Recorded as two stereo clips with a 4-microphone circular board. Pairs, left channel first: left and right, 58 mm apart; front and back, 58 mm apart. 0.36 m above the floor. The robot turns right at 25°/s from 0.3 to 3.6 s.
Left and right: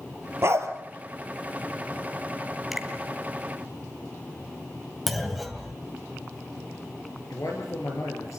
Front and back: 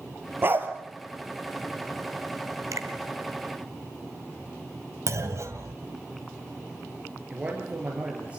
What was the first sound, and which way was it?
A dog barking, 130° right.